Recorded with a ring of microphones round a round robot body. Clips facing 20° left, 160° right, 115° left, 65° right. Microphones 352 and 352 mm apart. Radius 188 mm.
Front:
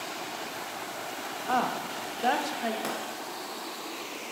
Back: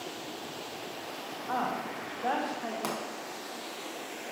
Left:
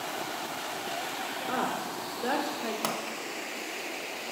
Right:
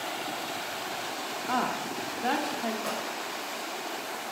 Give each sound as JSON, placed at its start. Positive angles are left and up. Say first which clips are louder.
{"t": 1.5, "sound": "a woman speaking", "louder": "front 3 dB, right 1 dB", "azimuth_deg": 5, "distance_m": 0.8}
{"t": 2.8, "sound": "a pop", "louder": "even, left 1 dB", "azimuth_deg": 125, "distance_m": 1.1}